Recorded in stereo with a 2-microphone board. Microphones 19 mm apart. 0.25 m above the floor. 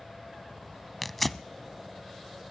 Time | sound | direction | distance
1.0 | tearing paper | 10° left (ahead or behind) | 0.5 m